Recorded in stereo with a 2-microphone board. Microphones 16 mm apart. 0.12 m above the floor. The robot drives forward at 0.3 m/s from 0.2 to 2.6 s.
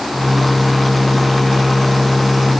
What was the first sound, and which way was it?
Only background noise.